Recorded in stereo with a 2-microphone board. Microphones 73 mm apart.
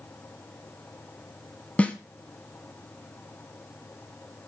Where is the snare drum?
15° left (ahead or behind), 0.9 m.